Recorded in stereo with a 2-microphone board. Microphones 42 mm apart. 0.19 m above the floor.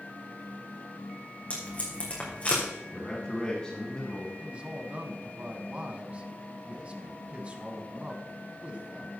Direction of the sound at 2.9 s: 20° left (ahead or behind).